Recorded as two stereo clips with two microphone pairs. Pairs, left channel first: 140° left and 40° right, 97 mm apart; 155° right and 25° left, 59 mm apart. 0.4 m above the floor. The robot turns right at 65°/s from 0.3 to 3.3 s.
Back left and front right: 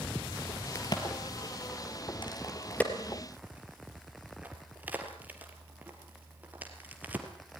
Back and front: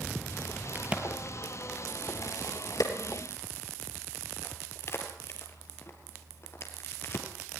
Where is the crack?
80° left, 3 m; by 7.3 s 110° right, 3 m.